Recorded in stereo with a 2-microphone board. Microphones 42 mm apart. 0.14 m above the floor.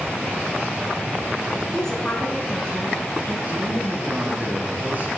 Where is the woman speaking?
15° left (ahead or behind), 1.8 m; by 3.4 s 30° left (ahead or behind), 2.5 m.